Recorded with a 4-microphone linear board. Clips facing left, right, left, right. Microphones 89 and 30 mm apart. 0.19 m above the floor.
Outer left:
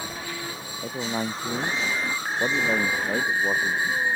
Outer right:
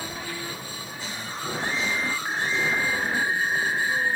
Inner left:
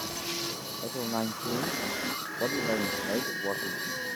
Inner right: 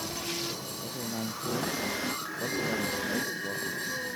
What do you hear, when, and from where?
0.8 s a man speaking: 75° left (ahead or behind)